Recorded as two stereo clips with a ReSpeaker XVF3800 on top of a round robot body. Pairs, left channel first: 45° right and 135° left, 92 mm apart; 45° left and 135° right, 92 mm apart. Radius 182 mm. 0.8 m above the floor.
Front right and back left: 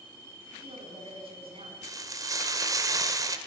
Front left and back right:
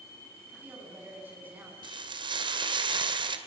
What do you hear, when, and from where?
0.5 s a woman speaking: 155° left, 7.5 m
1.8 s frying: 170° right, 2 m